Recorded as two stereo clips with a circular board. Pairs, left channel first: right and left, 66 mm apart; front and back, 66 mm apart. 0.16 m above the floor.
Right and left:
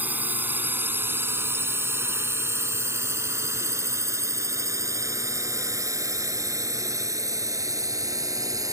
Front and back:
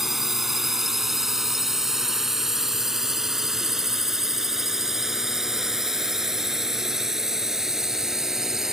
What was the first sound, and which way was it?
A drone, 100° left.